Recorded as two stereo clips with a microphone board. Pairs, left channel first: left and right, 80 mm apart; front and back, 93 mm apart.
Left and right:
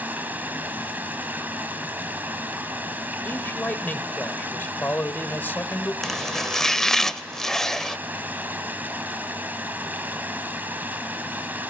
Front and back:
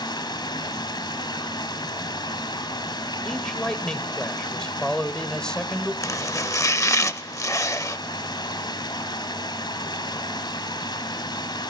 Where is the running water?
25° right, 2.5 m.